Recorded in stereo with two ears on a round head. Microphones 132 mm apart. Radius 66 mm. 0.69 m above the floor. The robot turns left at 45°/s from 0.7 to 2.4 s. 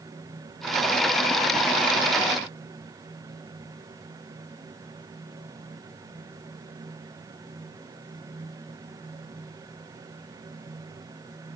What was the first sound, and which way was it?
Only background noise.